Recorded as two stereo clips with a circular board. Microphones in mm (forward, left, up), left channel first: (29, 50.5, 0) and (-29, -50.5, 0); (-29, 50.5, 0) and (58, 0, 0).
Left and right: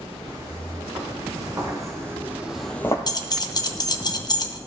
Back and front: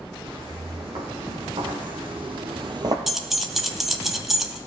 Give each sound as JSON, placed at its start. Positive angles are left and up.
{"t": 0.2, "sound": "footsteps", "azimuth_deg": -70, "distance_m": 3.5}
{"t": 3.1, "sound": "keys jangling", "azimuth_deg": 55, "distance_m": 0.5}